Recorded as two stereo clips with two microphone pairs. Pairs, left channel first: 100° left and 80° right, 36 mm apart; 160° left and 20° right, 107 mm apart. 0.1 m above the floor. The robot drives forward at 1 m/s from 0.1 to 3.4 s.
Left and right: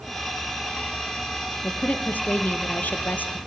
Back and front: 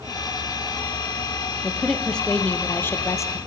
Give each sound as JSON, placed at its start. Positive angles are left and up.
{"t": 1.6, "sound": "a woman speaking", "azimuth_deg": 70, "distance_m": 3.0}